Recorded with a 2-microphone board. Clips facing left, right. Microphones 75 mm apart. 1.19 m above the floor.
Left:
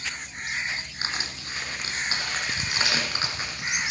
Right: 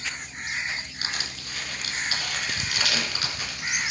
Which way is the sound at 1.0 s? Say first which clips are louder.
Left 1 dB; 30° left (ahead or behind).